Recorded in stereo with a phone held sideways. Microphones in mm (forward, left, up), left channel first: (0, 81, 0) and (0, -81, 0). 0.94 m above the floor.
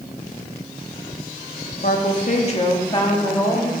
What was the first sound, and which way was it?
A woman speaking, 65° left (ahead or behind).